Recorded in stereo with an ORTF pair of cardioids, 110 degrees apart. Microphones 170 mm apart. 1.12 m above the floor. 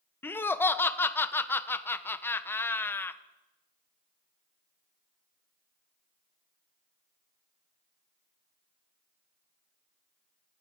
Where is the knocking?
I don't hear knocking.